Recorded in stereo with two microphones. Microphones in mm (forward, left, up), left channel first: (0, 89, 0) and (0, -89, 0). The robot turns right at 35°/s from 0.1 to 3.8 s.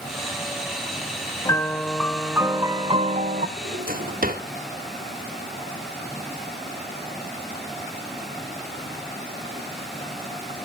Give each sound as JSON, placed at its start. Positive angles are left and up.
{"t": 1.4, "sound": "a piano", "azimuth_deg": 160, "distance_m": 1.0}
{"t": 3.6, "sound": "a drawer", "side_deg": -60, "distance_m": 1.3}